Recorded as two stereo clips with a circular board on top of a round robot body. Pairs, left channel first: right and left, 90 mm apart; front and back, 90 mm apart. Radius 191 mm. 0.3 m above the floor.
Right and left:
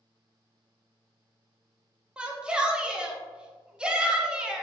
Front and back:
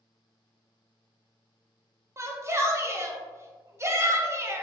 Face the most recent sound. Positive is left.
turn(degrees=160)